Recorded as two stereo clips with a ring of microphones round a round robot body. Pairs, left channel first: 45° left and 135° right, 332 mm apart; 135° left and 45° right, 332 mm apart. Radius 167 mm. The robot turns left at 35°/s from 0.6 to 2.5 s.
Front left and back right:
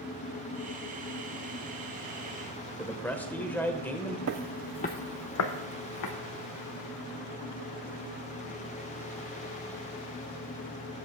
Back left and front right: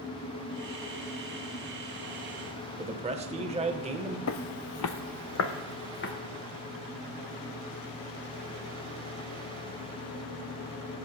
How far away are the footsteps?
About 0.5 m.